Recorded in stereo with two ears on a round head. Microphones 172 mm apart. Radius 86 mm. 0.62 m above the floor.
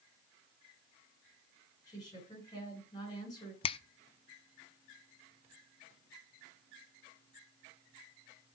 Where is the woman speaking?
20° left (ahead or behind), 8 m.